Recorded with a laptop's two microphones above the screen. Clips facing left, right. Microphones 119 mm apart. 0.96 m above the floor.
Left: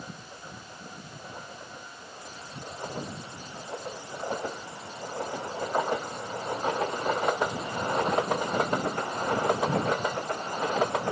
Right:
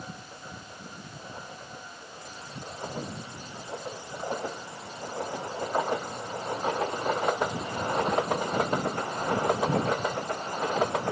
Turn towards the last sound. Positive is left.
No sound to turn to.